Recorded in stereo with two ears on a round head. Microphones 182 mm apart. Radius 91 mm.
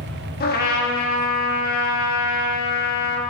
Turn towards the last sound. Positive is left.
turn(degrees=50)  # may be behind; listen again after turning